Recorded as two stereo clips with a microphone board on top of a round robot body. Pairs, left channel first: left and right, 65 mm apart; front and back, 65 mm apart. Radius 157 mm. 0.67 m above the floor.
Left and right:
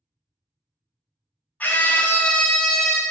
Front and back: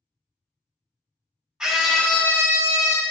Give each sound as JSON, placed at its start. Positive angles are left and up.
{"t": 1.6, "sound": "a scream", "azimuth_deg": 115, "distance_m": 0.6}